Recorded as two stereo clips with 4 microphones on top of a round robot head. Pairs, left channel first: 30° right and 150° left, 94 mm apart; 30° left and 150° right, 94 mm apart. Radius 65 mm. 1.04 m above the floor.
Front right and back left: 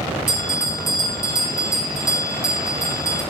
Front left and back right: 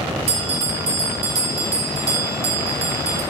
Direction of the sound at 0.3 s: 170° right.